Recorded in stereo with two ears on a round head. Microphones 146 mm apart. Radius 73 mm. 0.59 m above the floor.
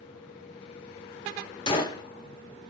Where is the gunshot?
30° left (ahead or behind), 1.2 m.